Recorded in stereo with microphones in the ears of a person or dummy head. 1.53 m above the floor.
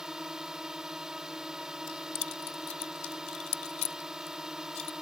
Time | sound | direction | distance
0.0 | a drone | centre (ahead or behind) | ?
1.9 | keys jangling | 40° left (ahead or behind) | ?